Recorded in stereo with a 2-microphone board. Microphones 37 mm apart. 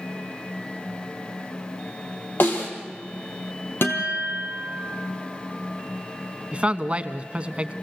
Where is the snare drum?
65° left (ahead or behind), 4.5 m.